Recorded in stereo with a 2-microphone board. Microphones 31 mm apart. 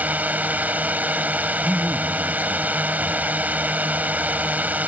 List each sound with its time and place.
0.0 s a drone: 65° right (ahead or behind)
1.6 s a man speaking: 85° right